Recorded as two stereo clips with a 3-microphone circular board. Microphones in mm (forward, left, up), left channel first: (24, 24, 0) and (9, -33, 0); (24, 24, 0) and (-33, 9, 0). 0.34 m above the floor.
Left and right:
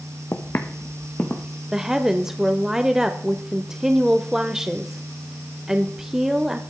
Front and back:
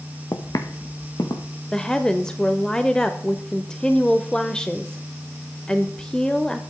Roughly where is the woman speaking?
Ahead right.